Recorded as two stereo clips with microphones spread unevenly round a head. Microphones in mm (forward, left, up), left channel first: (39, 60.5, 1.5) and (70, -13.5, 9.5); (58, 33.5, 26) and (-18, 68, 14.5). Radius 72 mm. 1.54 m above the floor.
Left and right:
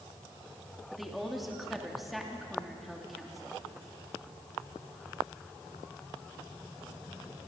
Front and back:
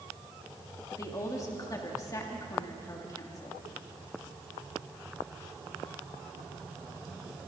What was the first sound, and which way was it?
A woman speaking, 20° left.